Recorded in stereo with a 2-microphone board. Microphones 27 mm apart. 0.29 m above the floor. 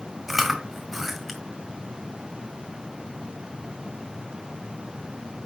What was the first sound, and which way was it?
Chewing, 5° right (ahead or behind).